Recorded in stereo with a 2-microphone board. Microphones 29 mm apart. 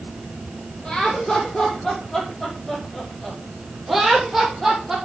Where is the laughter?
30° left (ahead or behind), 5.5 m; by 5.0 s 5° right (ahead or behind), 6 m.